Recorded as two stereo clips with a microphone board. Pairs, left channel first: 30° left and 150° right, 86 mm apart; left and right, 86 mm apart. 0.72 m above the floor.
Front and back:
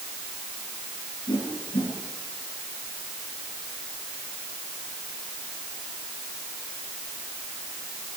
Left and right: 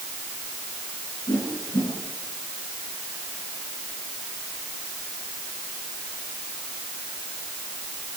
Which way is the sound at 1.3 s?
55° left.